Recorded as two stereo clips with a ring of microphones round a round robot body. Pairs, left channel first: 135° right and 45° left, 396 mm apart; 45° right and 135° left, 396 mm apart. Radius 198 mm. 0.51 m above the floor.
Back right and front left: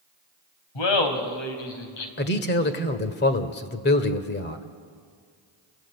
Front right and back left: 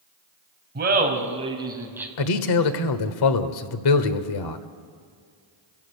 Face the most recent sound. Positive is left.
turn(degrees=-70)